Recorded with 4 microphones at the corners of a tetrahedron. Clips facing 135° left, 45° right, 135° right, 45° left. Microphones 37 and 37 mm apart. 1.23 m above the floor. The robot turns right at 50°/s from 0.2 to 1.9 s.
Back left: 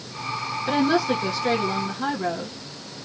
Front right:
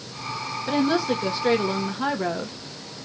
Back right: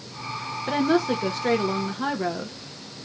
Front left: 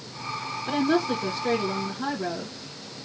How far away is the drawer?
I don't hear a drawer.